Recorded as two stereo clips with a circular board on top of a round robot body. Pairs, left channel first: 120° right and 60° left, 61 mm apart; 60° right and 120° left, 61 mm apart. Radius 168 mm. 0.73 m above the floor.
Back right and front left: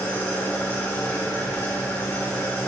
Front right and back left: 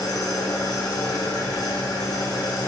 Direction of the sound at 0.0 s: 50° right.